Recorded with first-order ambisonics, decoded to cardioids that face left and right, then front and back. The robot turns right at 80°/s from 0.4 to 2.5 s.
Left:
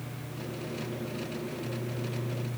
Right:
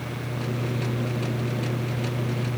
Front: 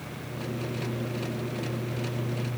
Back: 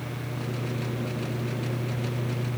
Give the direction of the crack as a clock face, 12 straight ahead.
No crack in this recording.